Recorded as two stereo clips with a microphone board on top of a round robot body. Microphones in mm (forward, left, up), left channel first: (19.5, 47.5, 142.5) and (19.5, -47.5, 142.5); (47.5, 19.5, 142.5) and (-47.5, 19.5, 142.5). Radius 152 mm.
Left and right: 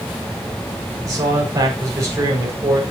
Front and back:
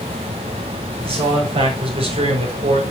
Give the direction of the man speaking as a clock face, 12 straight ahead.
5 o'clock.